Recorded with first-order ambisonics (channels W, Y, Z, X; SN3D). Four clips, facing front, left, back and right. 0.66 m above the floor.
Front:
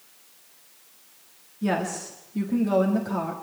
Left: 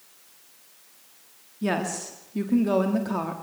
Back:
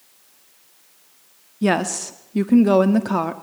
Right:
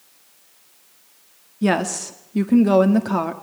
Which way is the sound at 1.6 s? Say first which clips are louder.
Right 7 dB, back 6 dB; 145° right.